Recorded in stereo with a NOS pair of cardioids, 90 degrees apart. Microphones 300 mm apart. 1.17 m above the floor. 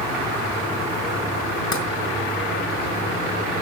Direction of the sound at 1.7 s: 45° left.